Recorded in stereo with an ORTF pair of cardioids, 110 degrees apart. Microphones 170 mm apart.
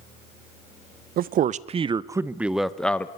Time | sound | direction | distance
1.2 | a man speaking | 60° right | 0.9 m